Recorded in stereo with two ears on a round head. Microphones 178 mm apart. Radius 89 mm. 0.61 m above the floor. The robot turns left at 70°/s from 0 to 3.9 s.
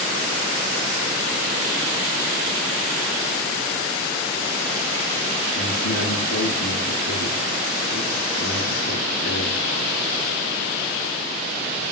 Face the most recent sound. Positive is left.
turn(degrees=80)